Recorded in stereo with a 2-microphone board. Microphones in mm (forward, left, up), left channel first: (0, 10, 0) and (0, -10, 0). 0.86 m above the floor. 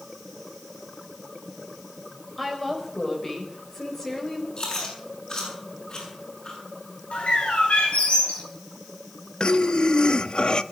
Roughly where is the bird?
Left.